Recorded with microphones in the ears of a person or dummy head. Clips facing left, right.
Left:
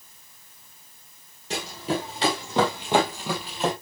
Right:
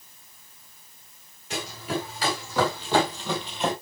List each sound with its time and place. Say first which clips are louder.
1.5 s running footsteps: left 2 dB; 30° left (ahead or behind), 3 m; by 3.7 s centre (ahead or behind), 2 m